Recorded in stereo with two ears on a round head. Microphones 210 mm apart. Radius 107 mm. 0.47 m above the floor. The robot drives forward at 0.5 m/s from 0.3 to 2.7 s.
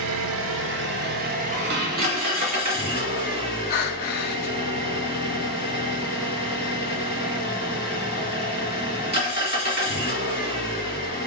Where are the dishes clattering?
50° right (ahead or behind), 0.9 m; by 2.9 s 35° right (ahead or behind), 1.2 m.